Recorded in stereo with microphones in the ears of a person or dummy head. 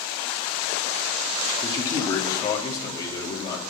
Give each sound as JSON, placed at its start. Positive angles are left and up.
{"t": 1.6, "sound": "a man speaking", "side_deg": 25, "distance_m": 3.0}